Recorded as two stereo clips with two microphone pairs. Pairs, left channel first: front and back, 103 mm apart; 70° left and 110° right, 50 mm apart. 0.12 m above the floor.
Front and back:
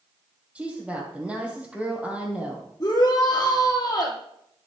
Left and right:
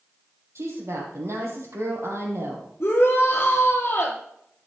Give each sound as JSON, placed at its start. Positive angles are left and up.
{"t": 0.6, "sound": "a woman speaking", "azimuth_deg": -100, "distance_m": 4.0}
{"t": 2.8, "sound": "a shout", "azimuth_deg": 40, "distance_m": 2.0}